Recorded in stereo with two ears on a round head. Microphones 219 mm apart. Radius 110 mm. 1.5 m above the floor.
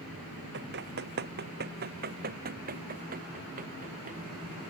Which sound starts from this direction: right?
Running footsteps, at 0.5 s.